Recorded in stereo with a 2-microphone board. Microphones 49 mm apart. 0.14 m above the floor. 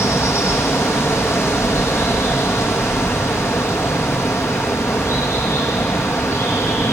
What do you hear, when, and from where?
0.0 s running water: 75° left (ahead or behind), 3.5 m